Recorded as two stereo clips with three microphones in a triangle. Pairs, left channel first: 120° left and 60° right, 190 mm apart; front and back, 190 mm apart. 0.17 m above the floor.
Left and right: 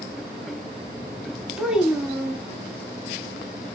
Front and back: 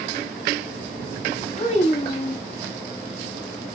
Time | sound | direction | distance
1.6 | a child speaking | 25° left | 0.8 m